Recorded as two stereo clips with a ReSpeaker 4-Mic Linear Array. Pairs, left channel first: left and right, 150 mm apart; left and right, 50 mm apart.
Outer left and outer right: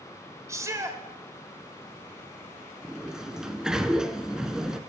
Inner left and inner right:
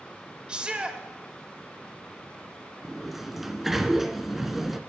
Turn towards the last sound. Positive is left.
turn(degrees=-5)  # may be behind; listen again after turning